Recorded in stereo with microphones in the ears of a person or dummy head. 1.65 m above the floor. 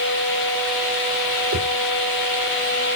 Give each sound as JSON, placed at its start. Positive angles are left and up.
{"t": 1.5, "sound": "a whoosh", "side_deg": -40, "distance_m": 1.9}